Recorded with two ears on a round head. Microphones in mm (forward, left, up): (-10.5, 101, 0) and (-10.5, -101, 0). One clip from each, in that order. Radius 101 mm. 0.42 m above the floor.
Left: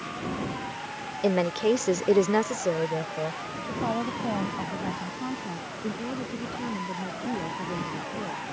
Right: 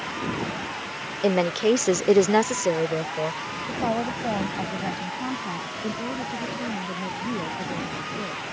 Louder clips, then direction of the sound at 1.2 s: Right 3 dB; 10° right (ahead or behind).